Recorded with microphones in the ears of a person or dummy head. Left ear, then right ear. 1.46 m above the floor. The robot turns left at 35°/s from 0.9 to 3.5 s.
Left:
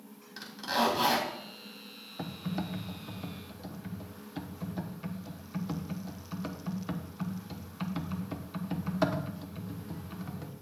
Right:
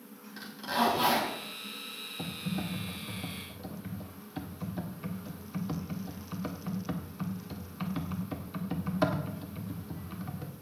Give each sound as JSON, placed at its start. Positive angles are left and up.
{"t": 0.4, "sound": "a zipper", "side_deg": 25, "distance_m": 3.0}
{"t": 2.2, "sound": "typing on a keyboard", "side_deg": 55, "distance_m": 1.0}